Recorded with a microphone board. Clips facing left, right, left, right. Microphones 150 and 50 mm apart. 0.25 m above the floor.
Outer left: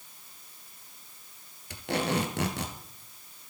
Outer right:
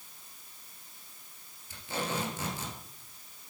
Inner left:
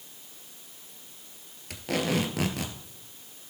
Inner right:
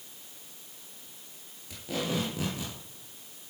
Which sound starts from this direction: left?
Tape being pulled, at 1.7 s.